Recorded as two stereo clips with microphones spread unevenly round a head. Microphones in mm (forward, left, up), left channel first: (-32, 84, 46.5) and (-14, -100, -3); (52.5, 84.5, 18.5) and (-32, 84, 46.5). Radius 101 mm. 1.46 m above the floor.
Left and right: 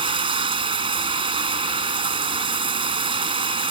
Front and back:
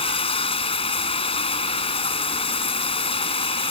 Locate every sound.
0.0 s running water: 15° right